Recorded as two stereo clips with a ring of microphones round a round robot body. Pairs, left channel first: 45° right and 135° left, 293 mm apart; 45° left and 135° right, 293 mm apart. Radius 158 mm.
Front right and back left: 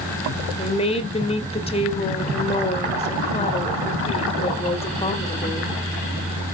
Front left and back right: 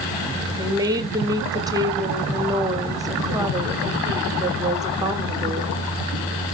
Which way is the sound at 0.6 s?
75° right.